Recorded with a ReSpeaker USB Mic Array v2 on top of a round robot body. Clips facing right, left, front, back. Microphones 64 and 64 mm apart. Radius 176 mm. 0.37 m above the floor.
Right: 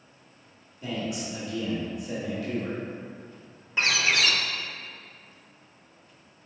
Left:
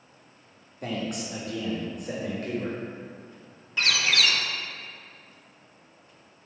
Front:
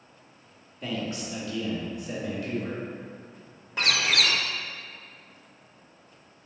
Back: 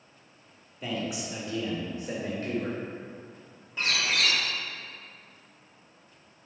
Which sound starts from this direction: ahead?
A bird, at 3.8 s.